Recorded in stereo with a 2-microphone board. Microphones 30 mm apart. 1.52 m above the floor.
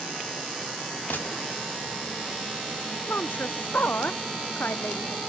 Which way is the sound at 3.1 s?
80° left.